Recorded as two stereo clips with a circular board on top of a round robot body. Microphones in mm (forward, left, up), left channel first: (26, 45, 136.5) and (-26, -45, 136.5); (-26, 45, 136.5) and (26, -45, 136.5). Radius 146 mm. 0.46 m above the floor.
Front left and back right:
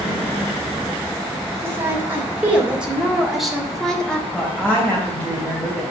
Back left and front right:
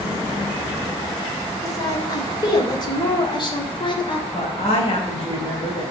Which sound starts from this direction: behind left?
A woman speaking, at 4.3 s.